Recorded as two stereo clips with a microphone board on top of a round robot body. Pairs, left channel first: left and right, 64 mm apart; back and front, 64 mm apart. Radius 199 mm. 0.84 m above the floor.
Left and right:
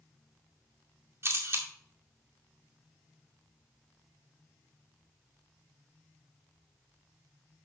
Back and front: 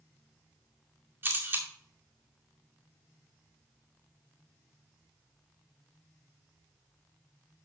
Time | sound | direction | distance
1.2 | a camera shutter | 50° right | 2 m